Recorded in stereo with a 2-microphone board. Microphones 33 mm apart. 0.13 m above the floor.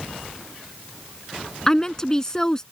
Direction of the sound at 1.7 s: 20° left (ahead or behind).